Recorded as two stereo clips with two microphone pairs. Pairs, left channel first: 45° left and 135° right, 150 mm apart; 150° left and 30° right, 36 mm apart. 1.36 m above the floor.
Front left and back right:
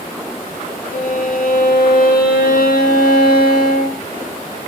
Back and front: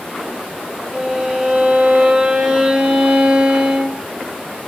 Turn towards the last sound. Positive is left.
turn(degrees=40)